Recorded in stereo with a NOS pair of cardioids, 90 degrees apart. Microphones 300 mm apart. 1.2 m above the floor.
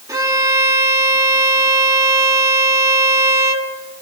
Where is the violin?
10° right, 2 m.